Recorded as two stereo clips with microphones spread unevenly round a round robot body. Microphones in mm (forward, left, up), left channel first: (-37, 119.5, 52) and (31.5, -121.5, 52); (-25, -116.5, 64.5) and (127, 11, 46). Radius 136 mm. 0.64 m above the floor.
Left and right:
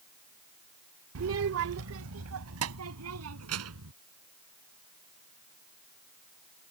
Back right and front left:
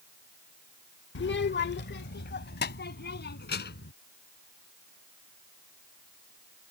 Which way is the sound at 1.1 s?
110° right.